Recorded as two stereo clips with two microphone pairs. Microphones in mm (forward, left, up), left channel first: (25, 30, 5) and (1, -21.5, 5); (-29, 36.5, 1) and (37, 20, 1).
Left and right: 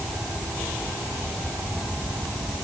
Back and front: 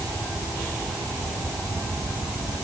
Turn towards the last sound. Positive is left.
No sound to turn to.